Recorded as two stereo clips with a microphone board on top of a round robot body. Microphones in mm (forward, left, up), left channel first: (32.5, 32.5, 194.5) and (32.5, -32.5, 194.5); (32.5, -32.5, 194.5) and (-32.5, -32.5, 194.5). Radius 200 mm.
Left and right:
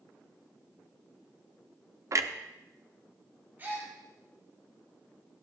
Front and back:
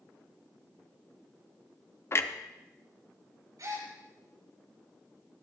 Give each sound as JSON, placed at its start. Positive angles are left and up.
{"t": 2.1, "sound": "a clunk", "azimuth_deg": -50, "distance_m": 0.9}
{"t": 3.6, "sound": "a gasp", "azimuth_deg": -150, "distance_m": 4.5}